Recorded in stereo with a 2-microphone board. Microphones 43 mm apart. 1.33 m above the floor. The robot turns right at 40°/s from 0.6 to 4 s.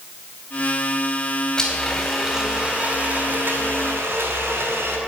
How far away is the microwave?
I don't hear a microwave.